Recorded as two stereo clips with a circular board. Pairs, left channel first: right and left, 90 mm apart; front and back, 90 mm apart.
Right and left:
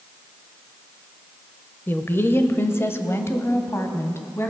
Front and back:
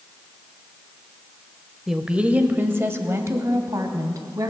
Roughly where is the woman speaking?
Right.